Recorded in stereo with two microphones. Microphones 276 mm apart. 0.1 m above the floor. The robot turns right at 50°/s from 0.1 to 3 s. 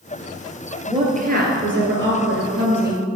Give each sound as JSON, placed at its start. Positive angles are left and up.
{"t": 0.9, "sound": "a woman speaking", "azimuth_deg": -155, "distance_m": 1.6}